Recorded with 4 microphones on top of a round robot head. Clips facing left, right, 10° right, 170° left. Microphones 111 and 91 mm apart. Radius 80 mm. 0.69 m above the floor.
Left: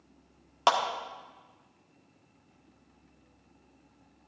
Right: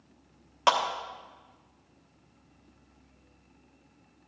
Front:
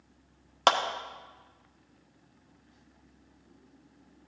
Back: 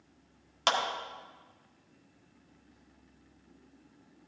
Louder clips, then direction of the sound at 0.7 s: Right 1 dB, front 5 dB; 25° left.